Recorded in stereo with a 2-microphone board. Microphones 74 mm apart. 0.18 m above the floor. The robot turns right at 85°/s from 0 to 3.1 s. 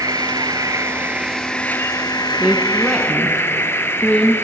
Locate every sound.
0.0 s an insect: 120° right, 1.5 m; by 4.4 s 145° left, 1.5 m
2.4 s a woman speaking: 30° right (ahead or behind), 1.4 m; by 4.3 s 15° left (ahead or behind), 1.4 m